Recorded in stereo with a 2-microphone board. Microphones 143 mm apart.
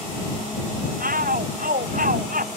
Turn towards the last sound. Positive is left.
turn(degrees=-75)  # may be behind; listen again after turning